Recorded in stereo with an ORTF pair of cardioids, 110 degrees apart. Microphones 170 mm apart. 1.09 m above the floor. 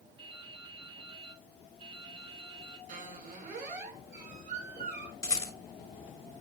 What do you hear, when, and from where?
0.2 s dripping: 35° right, 4.5 m
2.9 s a squeak: 55° right, 5.5 m
5.2 s a rattle: 20° left, 4 m